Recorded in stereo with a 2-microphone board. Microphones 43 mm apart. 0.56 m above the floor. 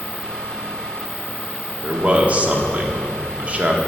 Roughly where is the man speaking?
Right.